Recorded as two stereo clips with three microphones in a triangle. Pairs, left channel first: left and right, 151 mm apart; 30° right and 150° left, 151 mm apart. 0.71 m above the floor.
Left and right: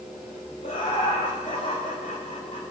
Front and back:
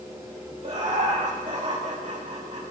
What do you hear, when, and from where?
0.6 s laughter: 115° left, 2 m